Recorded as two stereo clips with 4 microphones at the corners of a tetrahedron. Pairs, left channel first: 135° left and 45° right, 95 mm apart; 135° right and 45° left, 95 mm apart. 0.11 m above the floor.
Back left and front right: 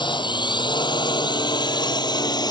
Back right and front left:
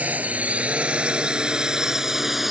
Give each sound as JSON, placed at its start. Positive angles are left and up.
{"t": 0.0, "sound": "a drone", "azimuth_deg": 115}